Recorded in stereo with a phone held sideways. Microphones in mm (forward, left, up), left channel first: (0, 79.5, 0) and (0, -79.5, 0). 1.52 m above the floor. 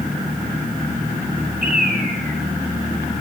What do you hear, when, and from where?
1.6 s a bird: 70° right (ahead or behind), 5 m